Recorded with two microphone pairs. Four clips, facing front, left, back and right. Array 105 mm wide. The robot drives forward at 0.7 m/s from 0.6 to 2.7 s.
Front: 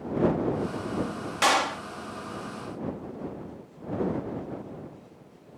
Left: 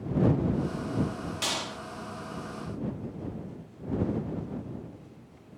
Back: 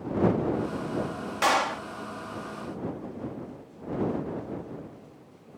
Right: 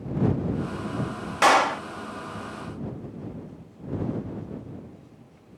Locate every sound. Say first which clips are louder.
1.4 s a clap: right 22 dB, even; 85° right; by 1.8 s 105° right